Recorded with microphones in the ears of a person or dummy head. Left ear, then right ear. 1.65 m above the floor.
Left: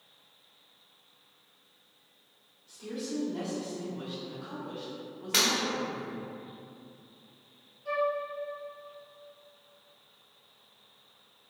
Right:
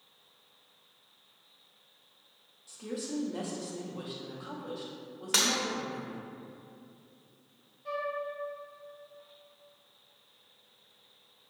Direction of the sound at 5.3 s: 45° right (ahead or behind).